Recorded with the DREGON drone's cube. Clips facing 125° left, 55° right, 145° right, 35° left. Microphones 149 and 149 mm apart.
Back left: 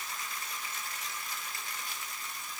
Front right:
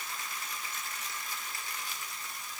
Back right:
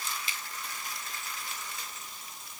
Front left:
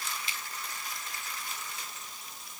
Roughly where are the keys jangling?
I don't hear keys jangling.